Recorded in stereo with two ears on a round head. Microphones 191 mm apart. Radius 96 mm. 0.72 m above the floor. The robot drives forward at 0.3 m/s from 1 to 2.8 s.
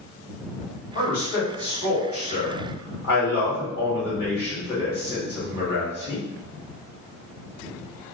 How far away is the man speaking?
About 1.7 m.